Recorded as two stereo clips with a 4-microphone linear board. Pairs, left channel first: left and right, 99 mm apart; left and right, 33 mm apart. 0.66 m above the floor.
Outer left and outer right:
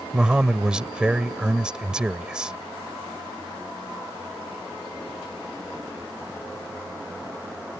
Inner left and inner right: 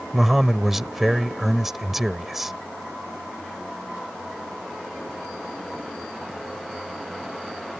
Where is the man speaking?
10° right (ahead or behind).